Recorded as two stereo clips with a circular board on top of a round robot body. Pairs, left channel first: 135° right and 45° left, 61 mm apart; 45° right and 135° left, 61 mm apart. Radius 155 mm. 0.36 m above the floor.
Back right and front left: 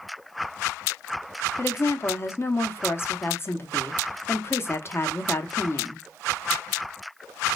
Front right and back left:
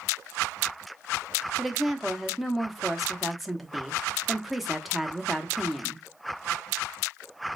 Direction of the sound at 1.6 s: 135° right.